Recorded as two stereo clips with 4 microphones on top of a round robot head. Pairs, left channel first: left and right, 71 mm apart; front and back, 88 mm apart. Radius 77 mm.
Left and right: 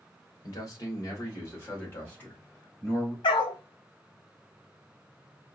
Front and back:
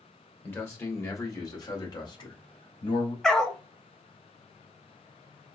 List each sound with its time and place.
0.4 s a man speaking: 60° left, 1.9 m; by 3.1 s 10° left, 2.5 m
3.2 s a dog barking: 85° left, 0.7 m